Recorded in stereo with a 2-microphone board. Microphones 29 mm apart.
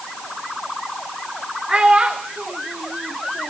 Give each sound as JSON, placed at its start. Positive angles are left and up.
{"t": 1.7, "sound": "a child speaking", "side_deg": -20, "distance_m": 5.0}